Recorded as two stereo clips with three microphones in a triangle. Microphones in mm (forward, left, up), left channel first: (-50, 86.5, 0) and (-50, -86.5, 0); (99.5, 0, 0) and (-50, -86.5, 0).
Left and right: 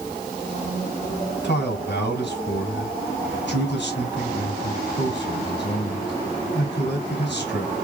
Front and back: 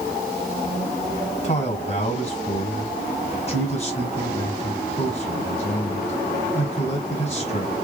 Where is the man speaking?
75° left, 4 m.